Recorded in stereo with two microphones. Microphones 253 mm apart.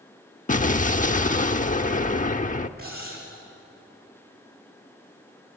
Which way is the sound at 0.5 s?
30° left (ahead or behind).